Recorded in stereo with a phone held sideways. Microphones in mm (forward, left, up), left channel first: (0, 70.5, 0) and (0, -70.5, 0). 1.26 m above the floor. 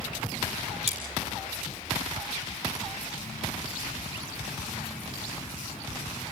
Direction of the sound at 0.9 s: 45° right (ahead or behind).